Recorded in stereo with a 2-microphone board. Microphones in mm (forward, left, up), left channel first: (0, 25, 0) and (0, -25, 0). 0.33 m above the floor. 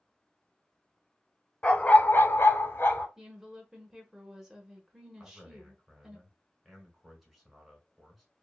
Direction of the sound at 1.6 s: 20° left (ahead or behind).